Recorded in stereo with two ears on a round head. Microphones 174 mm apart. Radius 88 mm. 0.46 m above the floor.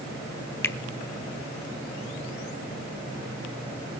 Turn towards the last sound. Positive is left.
turn(degrees=10)  # may be behind; listen again after turning